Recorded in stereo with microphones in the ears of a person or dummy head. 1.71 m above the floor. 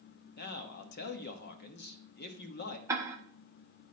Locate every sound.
0.4 s a man speaking: 55° left (ahead or behind), 0.9 m
2.9 s ticking: 15° right (ahead or behind), 1.0 m